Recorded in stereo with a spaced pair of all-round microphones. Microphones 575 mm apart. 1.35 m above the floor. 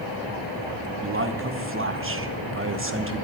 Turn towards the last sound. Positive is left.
turn(degrees=-20)  # may be behind; listen again after turning